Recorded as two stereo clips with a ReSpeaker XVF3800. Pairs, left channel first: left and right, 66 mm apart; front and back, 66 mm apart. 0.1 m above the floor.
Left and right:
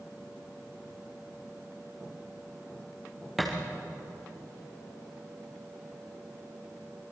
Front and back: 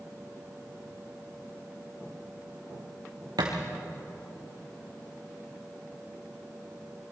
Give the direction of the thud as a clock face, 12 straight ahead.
6 o'clock.